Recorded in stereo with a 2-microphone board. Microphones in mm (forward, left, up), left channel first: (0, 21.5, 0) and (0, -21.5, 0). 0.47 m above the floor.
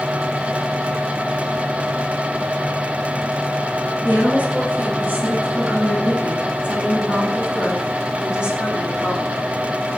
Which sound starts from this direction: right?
A woman speaking, at 4.0 s.